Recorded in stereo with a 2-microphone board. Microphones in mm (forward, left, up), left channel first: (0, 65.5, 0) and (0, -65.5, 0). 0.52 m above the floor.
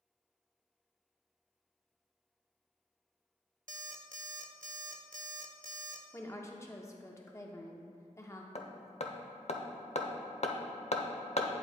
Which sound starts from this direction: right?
An alarm clock, at 3.7 s.